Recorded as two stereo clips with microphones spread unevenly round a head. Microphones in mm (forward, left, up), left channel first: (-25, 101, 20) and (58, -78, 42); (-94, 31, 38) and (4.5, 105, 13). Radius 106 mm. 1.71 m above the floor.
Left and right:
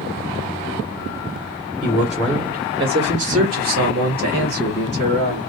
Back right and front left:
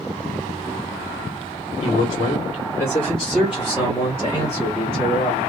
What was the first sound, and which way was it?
A man speaking, 155° right.